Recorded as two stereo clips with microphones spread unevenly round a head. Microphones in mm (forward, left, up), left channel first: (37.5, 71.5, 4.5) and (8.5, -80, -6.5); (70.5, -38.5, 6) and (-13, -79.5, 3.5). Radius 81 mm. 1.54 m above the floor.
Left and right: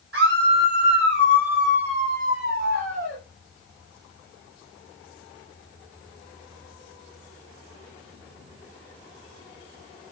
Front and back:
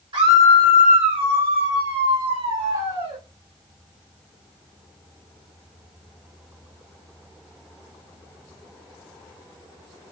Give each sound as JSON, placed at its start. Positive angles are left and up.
{"t": 0.1, "sound": "a scream", "azimuth_deg": -130, "distance_m": 6.0}